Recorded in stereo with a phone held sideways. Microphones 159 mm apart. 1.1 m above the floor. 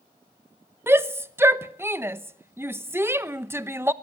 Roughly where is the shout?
Centre.